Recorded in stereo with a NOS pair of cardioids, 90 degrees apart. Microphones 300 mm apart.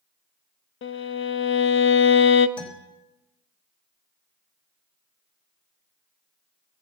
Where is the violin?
45° left, 0.9 m.